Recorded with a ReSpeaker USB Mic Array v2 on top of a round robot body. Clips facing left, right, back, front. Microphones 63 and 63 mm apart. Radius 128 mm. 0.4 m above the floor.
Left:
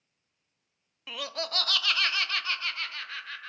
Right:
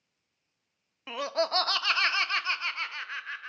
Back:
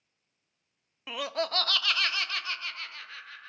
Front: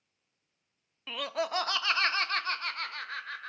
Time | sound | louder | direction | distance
1.1 | laughter | right 7 dB, back 1 dB | 115° right | 0.8 m